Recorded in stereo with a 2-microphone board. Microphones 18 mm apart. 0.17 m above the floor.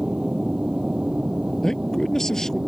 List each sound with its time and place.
0.0 s an aircraft: 60° right (ahead or behind); by 2.7 s 55° right (ahead or behind)
1.6 s a man speaking: 30° left (ahead or behind)